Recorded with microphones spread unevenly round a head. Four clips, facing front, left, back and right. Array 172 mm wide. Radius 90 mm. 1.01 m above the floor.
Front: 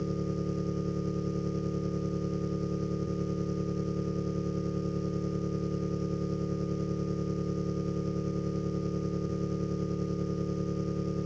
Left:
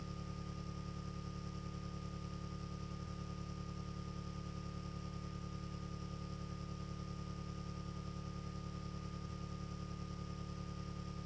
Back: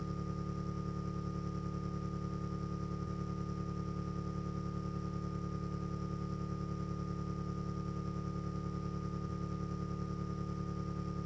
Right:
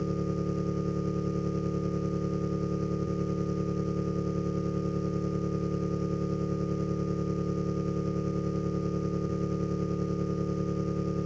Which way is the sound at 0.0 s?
60° right.